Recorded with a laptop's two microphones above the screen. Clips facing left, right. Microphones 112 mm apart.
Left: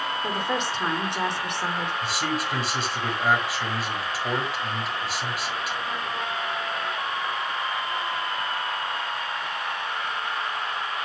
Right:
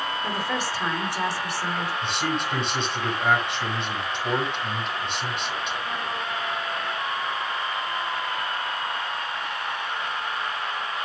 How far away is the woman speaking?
About 3.5 m.